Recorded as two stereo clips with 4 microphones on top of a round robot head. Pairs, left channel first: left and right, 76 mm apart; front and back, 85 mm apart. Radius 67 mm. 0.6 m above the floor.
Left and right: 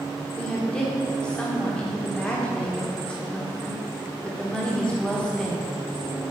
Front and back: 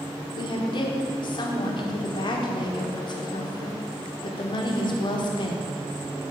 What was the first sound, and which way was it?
A woman speaking, 10° left.